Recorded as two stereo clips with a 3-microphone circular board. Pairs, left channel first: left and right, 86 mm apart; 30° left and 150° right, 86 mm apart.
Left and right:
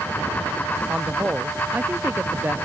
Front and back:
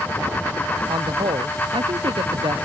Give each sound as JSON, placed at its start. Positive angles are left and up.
{"t": 0.9, "sound": "a man speaking", "azimuth_deg": -165}